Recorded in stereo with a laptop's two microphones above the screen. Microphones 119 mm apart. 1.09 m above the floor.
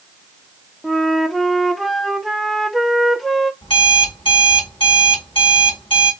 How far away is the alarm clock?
About 2.5 m.